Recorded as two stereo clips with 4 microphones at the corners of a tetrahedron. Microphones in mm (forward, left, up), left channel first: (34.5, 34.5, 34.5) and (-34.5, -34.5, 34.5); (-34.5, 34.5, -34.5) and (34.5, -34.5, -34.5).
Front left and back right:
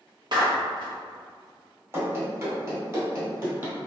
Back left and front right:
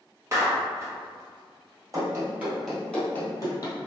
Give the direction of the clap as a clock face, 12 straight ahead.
3 o'clock.